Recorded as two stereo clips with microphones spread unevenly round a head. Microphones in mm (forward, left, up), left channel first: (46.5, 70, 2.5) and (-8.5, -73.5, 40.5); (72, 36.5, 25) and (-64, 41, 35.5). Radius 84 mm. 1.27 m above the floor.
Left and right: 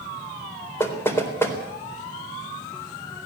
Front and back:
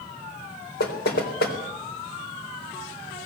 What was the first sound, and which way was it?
Knocking, 5° right.